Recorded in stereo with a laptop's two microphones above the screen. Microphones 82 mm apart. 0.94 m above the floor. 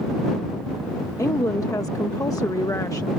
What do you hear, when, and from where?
1.2 s a woman speaking: 45° left (ahead or behind)